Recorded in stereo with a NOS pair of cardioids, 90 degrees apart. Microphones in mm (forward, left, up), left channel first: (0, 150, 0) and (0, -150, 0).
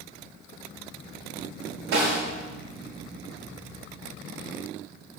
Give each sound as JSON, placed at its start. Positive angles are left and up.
{"t": 1.9, "sound": "a snare drum", "azimuth_deg": -65, "distance_m": 5.5}